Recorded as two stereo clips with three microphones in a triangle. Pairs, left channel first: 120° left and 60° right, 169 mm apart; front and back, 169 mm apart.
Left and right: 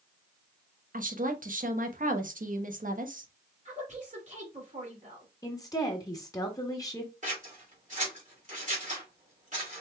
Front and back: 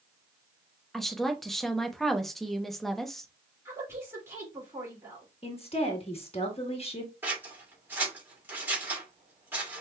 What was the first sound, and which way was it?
A woman speaking, 90° right.